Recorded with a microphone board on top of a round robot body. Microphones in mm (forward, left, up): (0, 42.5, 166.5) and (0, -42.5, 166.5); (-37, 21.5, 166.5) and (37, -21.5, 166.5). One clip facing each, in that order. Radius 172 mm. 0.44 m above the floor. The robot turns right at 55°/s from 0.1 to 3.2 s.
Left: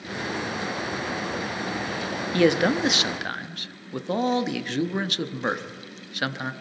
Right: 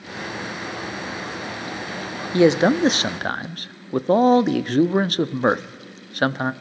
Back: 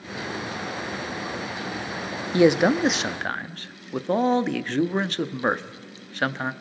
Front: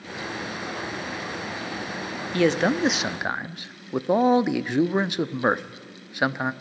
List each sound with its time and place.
2.3 s a man speaking: 150° right, 0.8 m; by 6.5 s 105° right, 0.8 m